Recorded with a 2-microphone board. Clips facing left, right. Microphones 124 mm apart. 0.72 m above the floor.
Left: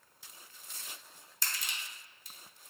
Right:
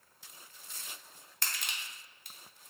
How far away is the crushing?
About 0.7 m.